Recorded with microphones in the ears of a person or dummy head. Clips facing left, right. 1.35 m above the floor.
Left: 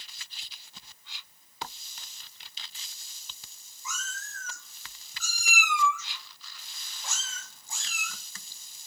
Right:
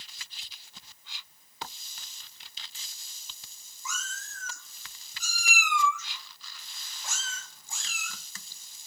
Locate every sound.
3.9 s a cat meowing: 50° right (ahead or behind), 1.5 m; by 8.1 s 40° left (ahead or behind), 2 m